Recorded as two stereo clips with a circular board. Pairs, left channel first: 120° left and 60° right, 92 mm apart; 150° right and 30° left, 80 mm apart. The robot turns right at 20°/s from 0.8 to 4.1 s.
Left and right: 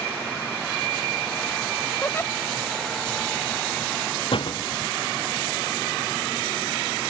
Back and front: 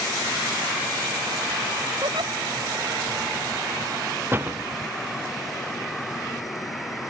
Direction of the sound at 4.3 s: 95° left.